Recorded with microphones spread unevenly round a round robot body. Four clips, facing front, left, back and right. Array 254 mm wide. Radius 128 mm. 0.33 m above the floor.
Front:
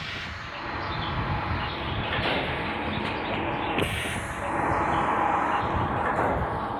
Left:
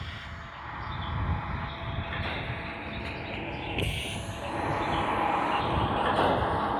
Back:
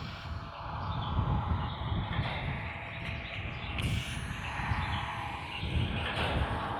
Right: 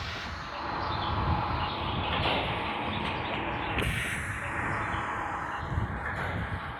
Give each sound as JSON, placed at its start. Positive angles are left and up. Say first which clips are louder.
{"t": 0.0, "sound": "a vehicle", "louder": "right 4 dB, front 6 dB", "azimuth_deg": -45}